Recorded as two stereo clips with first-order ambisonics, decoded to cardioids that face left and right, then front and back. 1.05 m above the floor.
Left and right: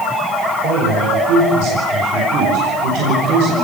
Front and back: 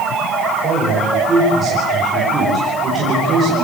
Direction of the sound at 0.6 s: 110° right.